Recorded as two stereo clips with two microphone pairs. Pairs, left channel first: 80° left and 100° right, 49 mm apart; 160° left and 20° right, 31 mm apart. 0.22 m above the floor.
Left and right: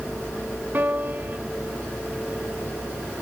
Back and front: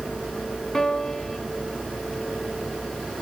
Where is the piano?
130° right, 2.5 m.